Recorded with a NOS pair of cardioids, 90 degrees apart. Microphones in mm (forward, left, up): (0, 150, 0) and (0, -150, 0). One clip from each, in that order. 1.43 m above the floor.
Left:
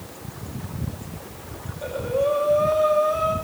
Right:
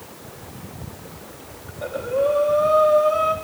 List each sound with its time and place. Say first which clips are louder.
1.7 s breathing: right 1 dB; 20° right, 5.5 m